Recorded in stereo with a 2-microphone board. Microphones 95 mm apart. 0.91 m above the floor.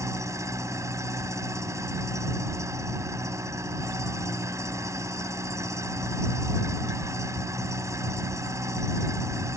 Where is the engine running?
35° right (ahead or behind).